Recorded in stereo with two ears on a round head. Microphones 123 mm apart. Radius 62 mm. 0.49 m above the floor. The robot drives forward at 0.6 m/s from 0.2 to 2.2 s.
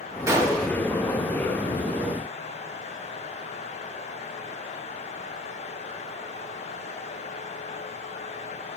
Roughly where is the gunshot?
Right.